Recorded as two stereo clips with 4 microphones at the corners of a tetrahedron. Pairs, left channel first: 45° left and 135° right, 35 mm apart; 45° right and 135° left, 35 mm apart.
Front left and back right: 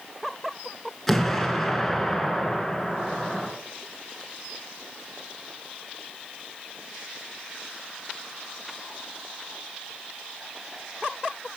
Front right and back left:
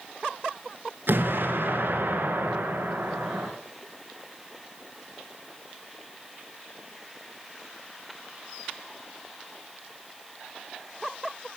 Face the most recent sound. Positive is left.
turn(degrees=130)